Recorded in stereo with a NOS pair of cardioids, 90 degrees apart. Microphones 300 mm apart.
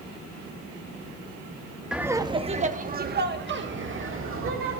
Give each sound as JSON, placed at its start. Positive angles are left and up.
{"t": 1.9, "sound": "laughter", "azimuth_deg": 0, "distance_m": 0.8}